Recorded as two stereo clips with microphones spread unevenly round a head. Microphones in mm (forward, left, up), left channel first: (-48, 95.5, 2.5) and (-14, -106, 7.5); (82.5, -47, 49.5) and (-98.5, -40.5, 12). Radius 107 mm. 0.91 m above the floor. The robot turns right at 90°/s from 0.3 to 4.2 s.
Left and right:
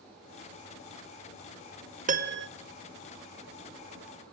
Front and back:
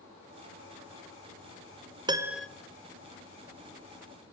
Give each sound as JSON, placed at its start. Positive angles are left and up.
{"t": 2.1, "sound": "a piano", "azimuth_deg": -130, "distance_m": 1.7}